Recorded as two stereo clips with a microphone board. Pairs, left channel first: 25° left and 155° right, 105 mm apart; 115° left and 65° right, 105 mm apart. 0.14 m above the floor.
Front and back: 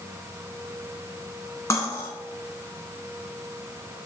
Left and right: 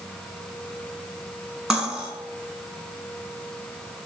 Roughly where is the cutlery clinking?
Ahead.